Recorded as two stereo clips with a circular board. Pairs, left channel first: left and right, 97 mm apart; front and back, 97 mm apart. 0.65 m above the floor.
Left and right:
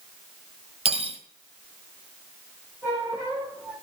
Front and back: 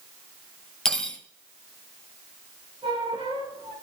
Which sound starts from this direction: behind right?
A squeak, at 2.8 s.